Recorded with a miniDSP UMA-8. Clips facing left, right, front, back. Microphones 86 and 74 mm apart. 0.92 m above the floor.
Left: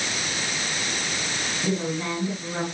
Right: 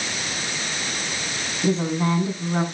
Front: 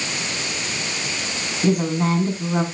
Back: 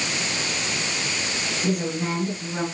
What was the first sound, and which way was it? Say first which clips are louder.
A woman speaking: right 6 dB, front 7 dB; 30° right.